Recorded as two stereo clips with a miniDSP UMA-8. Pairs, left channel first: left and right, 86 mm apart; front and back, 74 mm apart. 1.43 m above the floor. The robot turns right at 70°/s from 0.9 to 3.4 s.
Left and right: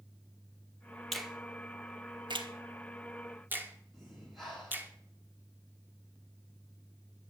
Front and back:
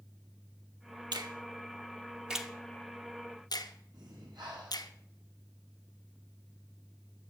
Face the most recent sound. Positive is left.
turn(degrees=180)